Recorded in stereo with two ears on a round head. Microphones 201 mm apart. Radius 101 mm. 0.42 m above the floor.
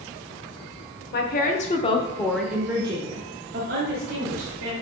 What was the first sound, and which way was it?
A woman speaking, 45° left (ahead or behind).